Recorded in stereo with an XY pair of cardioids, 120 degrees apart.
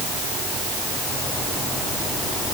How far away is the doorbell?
I don't hear a doorbell.